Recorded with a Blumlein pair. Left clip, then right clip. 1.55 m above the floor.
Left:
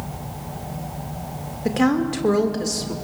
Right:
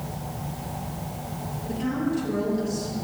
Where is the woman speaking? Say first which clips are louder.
Left 9 dB; 50° left, 1.9 m.